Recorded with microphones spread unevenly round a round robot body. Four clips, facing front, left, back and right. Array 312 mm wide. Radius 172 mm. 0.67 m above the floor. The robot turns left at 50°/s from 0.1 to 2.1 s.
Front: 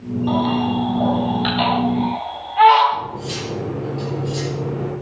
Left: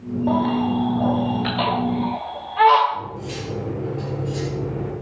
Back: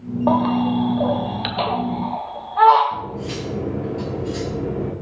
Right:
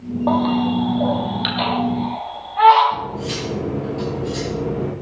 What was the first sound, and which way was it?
A baby crying, 130° right.